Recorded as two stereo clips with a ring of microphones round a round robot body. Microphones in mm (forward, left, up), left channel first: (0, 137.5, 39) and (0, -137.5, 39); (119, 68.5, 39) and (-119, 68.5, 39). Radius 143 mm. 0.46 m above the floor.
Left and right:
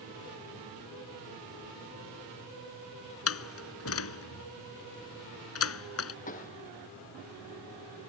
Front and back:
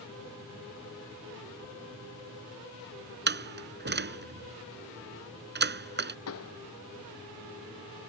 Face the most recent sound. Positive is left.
turn(degrees=25)